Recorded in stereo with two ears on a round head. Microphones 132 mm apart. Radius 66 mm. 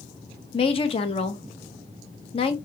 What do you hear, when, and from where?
0.5 s a woman speaking: 40° left (ahead or behind), 0.6 m